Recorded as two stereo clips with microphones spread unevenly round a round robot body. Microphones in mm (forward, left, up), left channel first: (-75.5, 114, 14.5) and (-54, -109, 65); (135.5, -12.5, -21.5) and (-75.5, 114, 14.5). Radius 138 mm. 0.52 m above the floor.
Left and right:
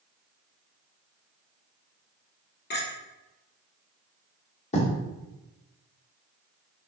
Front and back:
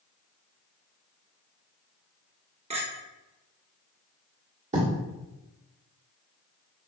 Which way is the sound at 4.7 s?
90° left.